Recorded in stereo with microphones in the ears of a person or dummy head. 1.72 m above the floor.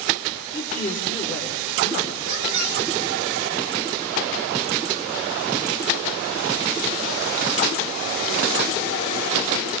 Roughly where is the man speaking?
Centre.